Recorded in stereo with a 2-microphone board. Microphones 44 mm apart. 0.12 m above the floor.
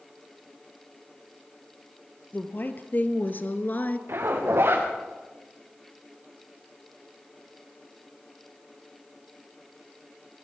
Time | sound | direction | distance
2.3 | a woman speaking | 45° left (ahead or behind) | 2.5 m
4.1 | a zipper | 60° right (ahead or behind) | 5.5 m